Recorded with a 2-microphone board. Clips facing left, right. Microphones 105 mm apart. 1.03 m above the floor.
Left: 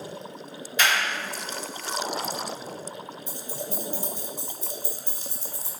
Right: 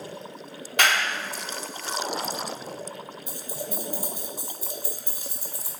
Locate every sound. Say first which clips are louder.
0.8 s a clap: right 1 dB; 75° right (ahead or behind), 2.5 m
3.3 s keys jangling: even; 15° right (ahead or behind), 2.5 m